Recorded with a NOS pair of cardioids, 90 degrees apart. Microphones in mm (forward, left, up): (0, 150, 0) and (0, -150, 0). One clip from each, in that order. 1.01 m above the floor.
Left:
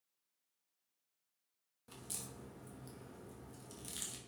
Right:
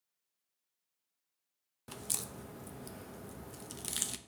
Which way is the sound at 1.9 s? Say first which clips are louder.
Right 8 dB; 50° right.